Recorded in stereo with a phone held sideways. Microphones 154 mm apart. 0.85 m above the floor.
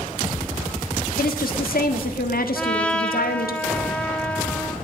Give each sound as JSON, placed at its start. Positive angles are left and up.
{"t": 1.2, "sound": "a woman speaking", "side_deg": 75, "distance_m": 1.7}
{"t": 2.5, "sound": "a trumpet", "side_deg": 10, "distance_m": 1.6}